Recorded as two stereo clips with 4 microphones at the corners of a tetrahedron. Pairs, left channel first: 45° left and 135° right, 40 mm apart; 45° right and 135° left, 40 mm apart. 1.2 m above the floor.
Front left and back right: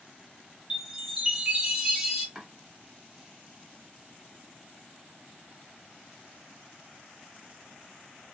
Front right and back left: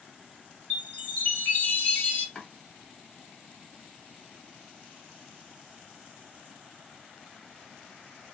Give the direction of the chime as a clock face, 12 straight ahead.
2 o'clock.